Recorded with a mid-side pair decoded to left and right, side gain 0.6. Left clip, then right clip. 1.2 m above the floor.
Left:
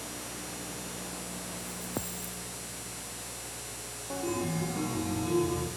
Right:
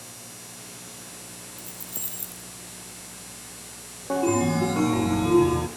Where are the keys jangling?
70° right, 6 m.